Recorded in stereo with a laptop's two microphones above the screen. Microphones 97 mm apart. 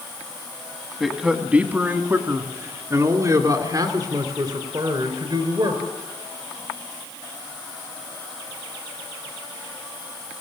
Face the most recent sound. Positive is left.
turn(degrees=-50)  # may be behind; listen again after turning